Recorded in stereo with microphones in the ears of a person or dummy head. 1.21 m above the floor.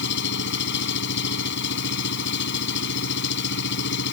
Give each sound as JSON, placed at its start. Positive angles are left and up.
{"t": 0.0, "sound": "an engine running", "side_deg": 65}